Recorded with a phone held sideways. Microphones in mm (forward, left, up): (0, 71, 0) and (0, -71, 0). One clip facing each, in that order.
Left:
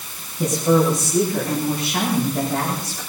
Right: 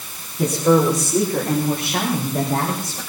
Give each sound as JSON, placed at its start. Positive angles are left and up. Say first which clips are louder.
{"t": 0.4, "sound": "a woman speaking", "louder": "right 1 dB", "side_deg": -80, "distance_m": 5.5}